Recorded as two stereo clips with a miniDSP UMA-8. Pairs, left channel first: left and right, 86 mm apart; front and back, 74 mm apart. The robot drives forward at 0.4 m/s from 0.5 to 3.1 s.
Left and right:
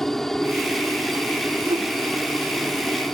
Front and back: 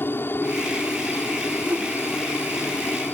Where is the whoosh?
115° right.